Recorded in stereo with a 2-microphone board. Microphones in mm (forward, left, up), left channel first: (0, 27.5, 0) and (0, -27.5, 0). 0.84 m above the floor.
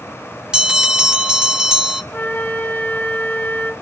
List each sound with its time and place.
0.5 s a bell: 15° right (ahead or behind), 0.7 m
2.1 s a flute: 35° left (ahead or behind), 1.3 m